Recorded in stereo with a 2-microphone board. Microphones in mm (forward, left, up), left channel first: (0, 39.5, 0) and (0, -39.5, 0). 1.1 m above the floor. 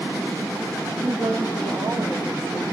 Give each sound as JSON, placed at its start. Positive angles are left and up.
{"t": 1.0, "sound": "a woman speaking", "side_deg": -35, "distance_m": 1.9}